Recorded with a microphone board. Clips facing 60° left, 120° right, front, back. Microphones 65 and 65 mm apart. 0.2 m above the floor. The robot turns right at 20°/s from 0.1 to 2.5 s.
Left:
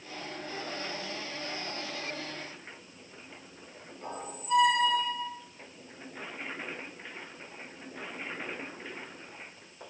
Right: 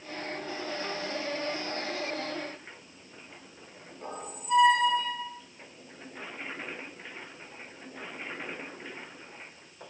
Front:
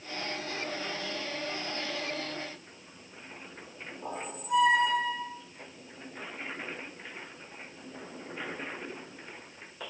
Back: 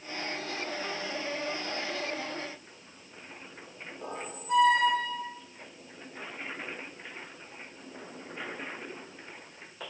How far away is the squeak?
About 3 m.